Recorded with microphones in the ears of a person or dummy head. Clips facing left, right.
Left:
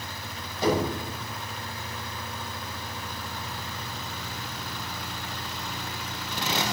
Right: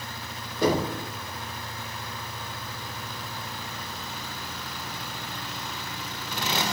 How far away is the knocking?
About 3 m.